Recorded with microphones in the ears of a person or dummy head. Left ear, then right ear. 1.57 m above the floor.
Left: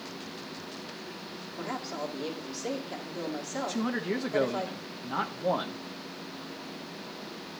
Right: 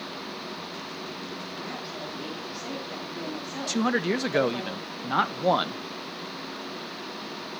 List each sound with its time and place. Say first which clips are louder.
1.6 s a woman speaking: left 5 dB; 20° left (ahead or behind), 2.5 m
3.7 s a man speaking: right 9 dB; 80° right, 0.6 m